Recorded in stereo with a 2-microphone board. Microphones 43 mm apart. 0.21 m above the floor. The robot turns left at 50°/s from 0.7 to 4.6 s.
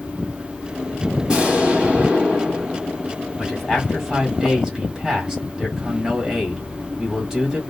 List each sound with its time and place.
1.3 s an explosion: 20° right (ahead or behind), 1.2 m; by 3.1 s 5° right (ahead or behind), 1.2 m
3.4 s a man speaking: 10° left (ahead or behind), 1.7 m; by 7.6 s 15° right (ahead or behind), 1.7 m